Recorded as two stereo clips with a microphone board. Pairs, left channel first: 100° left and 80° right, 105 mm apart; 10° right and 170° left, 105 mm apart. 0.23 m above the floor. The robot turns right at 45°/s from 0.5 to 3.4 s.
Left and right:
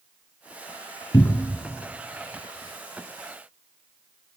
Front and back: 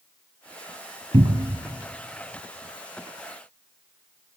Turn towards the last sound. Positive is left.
turn(degrees=-115)